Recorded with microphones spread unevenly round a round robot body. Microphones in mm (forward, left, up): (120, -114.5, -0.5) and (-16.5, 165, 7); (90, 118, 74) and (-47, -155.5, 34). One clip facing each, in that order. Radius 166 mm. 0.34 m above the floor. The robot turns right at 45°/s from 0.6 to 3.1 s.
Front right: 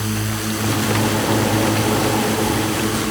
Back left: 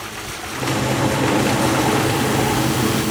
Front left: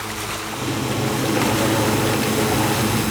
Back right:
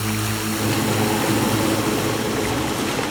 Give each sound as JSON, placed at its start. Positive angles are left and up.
{"t": 0.0, "sound": "a drone", "azimuth_deg": -80}